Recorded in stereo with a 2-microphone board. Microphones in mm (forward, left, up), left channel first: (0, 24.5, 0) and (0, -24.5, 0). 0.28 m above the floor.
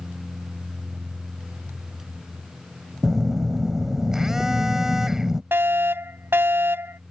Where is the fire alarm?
50° right (ahead or behind).